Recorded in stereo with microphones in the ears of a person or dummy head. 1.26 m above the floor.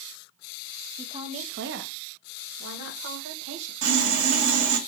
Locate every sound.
1.0 s a woman speaking: 10° right (ahead or behind), 0.5 m; by 3.7 s 70° right (ahead or behind), 1.5 m
3.8 s sawing: 70° right (ahead or behind), 1.0 m